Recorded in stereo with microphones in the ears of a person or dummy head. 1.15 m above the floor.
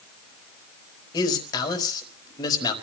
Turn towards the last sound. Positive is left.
turn(degrees=20)  # may be behind; listen again after turning